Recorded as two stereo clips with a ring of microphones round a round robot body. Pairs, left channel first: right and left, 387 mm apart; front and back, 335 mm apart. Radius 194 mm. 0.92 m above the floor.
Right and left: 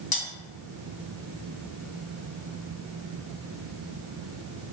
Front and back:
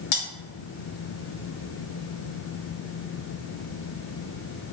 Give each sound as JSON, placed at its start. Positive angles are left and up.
{"t": 0.1, "sound": "cutlery clinking", "azimuth_deg": -15, "distance_m": 1.0}